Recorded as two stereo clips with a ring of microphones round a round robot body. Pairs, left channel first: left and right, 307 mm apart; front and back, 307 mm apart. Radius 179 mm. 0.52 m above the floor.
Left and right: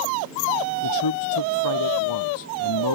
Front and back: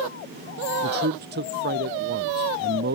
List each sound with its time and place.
0.8 s a man speaking: 120° left